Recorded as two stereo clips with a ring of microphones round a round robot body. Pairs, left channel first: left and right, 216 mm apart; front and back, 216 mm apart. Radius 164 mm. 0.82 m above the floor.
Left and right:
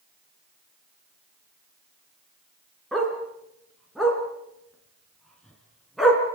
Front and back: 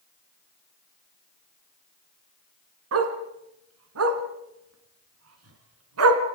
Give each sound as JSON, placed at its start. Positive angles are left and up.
{"t": 2.9, "sound": "a dog barking", "azimuth_deg": 180, "distance_m": 3.0}